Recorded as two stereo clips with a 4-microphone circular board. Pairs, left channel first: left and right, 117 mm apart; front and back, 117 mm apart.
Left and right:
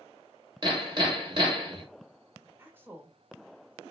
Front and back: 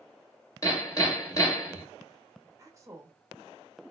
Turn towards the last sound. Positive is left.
turn(degrees=-145)